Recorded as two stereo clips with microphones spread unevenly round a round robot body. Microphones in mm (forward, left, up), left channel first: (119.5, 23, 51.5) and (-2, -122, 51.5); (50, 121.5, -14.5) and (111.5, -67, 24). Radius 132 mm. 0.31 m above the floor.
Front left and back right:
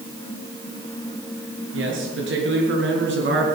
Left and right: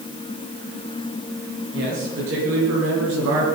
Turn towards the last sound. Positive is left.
turn(degrees=-110)